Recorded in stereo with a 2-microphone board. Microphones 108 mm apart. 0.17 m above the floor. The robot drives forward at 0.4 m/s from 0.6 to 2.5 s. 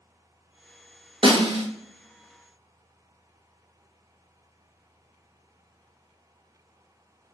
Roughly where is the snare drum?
Right.